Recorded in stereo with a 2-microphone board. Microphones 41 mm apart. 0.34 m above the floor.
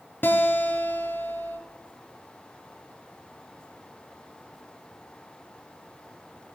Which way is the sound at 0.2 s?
60° left (ahead or behind).